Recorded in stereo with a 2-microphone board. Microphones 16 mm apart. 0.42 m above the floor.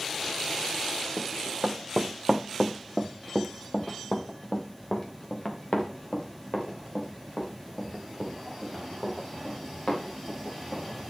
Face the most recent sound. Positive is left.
turn(degrees=60)  # may be behind; listen again after turning